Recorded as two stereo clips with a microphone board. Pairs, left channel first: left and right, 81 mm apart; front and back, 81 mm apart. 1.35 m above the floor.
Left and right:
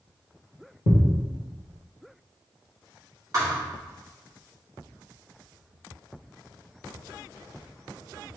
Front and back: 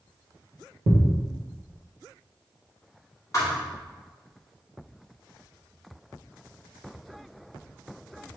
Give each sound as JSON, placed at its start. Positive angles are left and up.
{"t": 0.9, "sound": "a thud", "azimuth_deg": -55, "distance_m": 1.8}
{"t": 3.3, "sound": "a thud", "azimuth_deg": -45, "distance_m": 1.5}